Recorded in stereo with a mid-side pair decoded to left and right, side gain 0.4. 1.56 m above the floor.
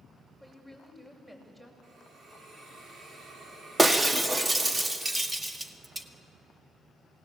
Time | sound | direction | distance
0.4 | a woman speaking | 15° right | 8 m
1.8 | a hiss | 60° right | 5 m
3.8 | breaking glass | 25° right | 2 m